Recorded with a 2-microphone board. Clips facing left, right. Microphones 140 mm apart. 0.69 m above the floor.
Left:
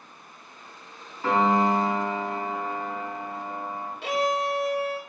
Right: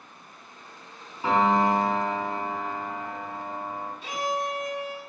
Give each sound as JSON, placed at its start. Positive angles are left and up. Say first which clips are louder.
{"t": 1.2, "sound": "a piano", "louder": "even", "side_deg": -15, "distance_m": 3.5}
{"t": 4.0, "sound": "a violin", "louder": "left 5 dB", "side_deg": 70, "distance_m": 0.8}